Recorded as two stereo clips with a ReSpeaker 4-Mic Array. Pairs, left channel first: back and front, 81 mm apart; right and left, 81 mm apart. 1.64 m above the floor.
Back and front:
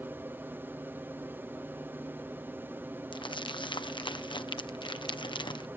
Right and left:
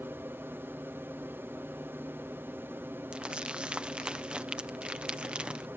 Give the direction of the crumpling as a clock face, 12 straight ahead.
6 o'clock.